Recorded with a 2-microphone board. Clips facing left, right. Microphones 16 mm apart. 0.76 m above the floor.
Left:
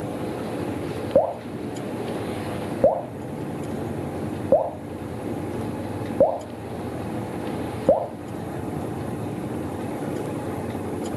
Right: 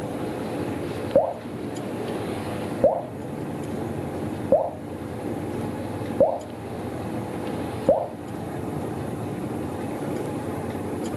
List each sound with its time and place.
1.1 s dripping: 20° left (ahead or behind), 1.5 m